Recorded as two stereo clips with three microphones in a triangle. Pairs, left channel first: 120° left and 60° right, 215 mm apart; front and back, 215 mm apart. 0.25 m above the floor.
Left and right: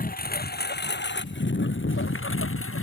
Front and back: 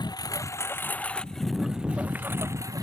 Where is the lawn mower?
70° left; by 2.8 s 105° left.